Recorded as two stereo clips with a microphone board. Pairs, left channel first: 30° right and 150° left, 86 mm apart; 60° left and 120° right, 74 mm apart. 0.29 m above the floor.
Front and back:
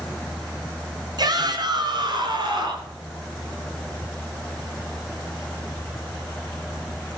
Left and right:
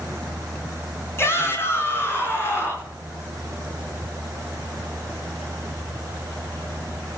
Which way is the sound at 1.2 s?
115° left.